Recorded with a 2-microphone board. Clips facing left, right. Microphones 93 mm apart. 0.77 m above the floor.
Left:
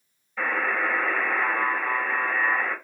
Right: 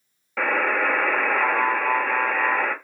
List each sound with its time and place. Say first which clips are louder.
0.4 s a buzzer: right 4 dB; 75° right (ahead or behind), 1.1 m